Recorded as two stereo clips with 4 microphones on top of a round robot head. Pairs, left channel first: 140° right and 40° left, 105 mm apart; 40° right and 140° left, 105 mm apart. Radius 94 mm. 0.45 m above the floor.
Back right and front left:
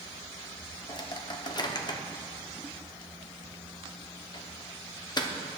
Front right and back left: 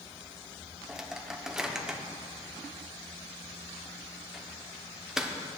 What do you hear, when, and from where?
0.9 s a microwave: 140° right, 1.3 m